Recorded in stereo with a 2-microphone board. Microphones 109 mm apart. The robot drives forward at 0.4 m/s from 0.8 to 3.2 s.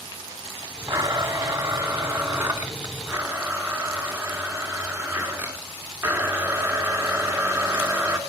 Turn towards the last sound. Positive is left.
turn(degrees=-15)  # may be behind; listen again after turning